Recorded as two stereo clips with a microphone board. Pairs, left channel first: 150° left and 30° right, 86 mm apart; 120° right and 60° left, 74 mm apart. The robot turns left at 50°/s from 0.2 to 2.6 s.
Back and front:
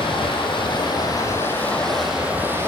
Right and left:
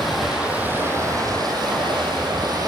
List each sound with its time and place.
0.0 s running water: 150° left, 8.5 m; by 2.7 s 30° left, 8.5 m